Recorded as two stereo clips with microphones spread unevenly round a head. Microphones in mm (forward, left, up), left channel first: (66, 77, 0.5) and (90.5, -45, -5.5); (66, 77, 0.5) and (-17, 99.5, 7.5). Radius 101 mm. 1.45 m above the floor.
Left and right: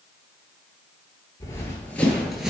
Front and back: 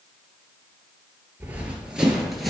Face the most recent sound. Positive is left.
turn(degrees=-140)